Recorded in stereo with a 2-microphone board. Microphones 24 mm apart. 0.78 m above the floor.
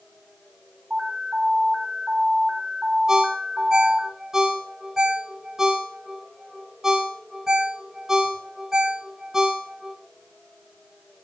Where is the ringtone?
20° right (ahead or behind), 4.5 m.